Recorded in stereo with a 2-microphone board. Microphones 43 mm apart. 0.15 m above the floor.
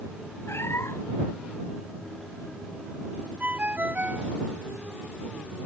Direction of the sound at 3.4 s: 35° right (ahead or behind).